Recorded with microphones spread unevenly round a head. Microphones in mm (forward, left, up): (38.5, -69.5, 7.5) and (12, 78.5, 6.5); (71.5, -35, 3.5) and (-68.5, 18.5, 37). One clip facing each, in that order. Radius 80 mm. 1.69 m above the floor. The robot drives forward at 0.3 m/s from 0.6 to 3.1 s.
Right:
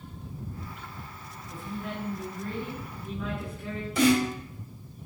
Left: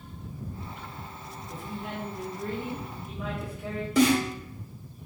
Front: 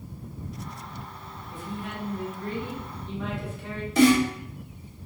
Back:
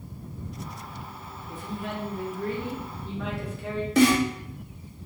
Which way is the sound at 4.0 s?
125° left.